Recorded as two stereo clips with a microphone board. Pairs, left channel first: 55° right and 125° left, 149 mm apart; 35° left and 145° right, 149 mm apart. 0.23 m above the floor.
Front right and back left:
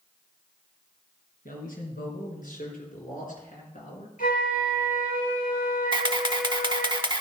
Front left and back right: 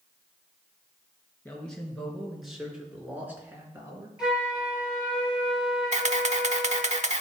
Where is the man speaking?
45° right, 4 m; by 4.1 s 80° right, 3.5 m.